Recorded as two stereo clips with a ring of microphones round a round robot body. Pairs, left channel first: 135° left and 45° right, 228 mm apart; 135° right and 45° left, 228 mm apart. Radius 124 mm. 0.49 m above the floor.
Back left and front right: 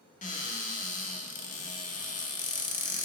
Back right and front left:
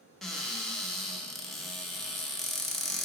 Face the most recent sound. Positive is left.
turn(degrees=135)